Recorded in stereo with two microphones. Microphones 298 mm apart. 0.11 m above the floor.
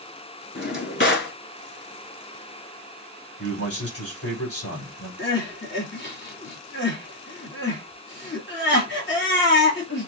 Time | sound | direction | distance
0.6 | a drawer | 40° left (ahead or behind) | 1.0 m
3.4 | a man speaking | 50° left (ahead or behind) | 4 m
5.2 | crying | 40° left (ahead or behind) | 2.5 m